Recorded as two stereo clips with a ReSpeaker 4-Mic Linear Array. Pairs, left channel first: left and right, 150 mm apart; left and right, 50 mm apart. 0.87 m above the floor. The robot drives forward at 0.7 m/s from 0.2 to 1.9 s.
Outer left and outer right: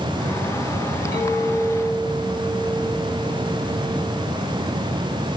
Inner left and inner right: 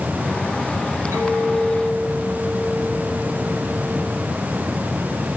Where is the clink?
55° right (ahead or behind), 5.5 m; by 4.3 s 50° right (ahead or behind), 6 m.